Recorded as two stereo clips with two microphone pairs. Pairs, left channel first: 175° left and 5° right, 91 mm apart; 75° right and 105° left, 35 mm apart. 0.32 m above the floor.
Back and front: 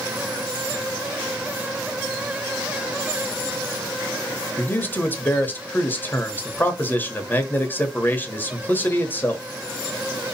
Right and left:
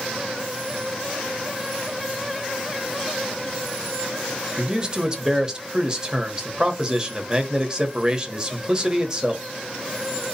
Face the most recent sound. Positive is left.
turn(degrees=150)